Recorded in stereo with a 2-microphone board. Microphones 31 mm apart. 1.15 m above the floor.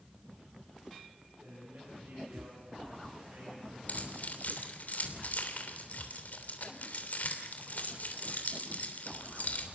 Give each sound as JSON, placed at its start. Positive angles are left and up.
{"t": 1.4, "sound": "a man speaking", "side_deg": -75, "distance_m": 8.5}
{"t": 3.9, "sound": "keys jangling", "side_deg": 55, "distance_m": 3.0}